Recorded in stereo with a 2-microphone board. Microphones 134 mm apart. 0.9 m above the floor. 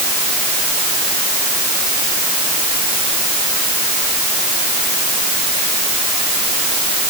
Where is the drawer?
No drawer in this recording.